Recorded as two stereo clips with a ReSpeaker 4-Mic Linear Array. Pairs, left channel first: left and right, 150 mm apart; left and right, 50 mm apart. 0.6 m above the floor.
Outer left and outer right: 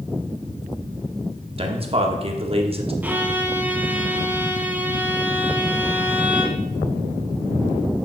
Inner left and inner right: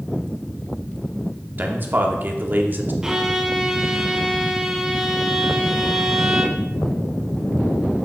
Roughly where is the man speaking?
Right.